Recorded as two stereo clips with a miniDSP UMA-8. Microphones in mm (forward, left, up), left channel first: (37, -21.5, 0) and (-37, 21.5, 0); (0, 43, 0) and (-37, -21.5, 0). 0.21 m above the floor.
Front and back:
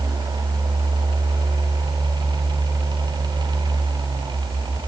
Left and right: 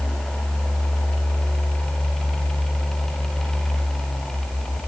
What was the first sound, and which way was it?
Only background noise.